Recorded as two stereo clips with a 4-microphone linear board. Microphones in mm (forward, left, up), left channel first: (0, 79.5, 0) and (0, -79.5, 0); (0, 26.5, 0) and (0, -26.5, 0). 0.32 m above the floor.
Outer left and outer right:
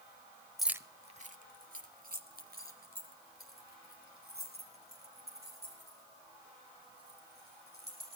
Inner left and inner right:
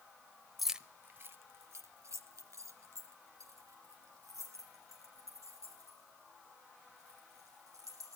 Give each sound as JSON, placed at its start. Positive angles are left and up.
{"t": 0.6, "sound": "keys jangling", "side_deg": 0, "distance_m": 0.7}